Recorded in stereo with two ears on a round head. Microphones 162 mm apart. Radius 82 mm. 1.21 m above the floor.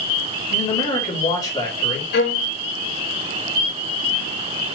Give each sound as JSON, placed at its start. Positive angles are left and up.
{"t": 0.5, "sound": "a man speaking", "side_deg": 25, "distance_m": 3.5}
{"t": 2.1, "sound": "a violin", "side_deg": 70, "distance_m": 2.5}